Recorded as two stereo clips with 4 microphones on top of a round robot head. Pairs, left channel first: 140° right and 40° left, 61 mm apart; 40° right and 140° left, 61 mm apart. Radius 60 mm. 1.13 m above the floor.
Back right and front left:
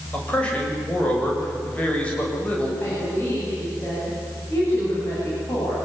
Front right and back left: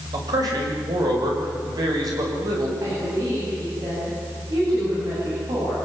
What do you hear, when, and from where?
0.1 s a man speaking: 150° left, 7.5 m
2.8 s a woman speaking: 170° left, 9.5 m